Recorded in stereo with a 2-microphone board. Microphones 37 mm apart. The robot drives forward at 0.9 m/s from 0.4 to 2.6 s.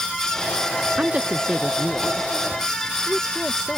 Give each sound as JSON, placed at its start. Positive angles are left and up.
{"t": 1.0, "sound": "a woman speaking", "side_deg": -40}